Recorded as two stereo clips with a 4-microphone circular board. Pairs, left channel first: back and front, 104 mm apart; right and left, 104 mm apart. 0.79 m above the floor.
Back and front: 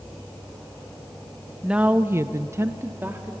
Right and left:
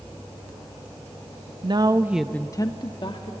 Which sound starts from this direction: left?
A woman speaking, at 1.6 s.